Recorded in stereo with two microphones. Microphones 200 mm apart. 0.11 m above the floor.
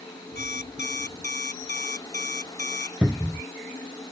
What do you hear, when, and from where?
0.3 s an alarm clock: 60° left (ahead or behind)
3.0 s a cupboard door: 5° right (ahead or behind)